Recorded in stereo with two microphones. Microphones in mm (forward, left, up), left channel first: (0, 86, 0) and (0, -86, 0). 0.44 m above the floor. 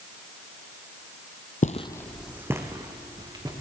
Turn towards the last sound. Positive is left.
turn(degrees=-25)  # may be behind; listen again after turning